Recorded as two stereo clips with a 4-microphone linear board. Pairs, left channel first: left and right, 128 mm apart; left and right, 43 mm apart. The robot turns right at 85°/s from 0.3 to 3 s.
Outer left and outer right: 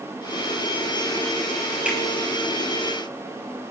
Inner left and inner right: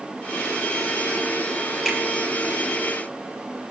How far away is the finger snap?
About 2.5 m.